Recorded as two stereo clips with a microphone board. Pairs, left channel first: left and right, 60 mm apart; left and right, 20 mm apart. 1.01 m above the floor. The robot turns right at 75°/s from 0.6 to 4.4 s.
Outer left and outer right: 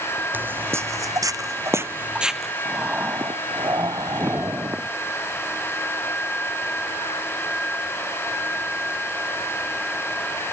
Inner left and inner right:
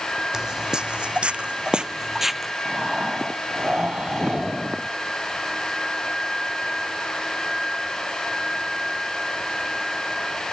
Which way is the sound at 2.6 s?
170° right.